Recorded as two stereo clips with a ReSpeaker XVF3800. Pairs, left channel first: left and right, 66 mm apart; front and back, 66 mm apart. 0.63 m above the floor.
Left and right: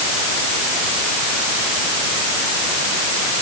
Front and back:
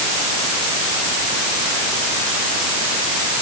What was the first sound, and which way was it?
Only background noise.